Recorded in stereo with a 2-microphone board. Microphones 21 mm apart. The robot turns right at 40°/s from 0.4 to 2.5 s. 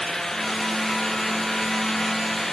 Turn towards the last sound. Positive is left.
No sound to turn to.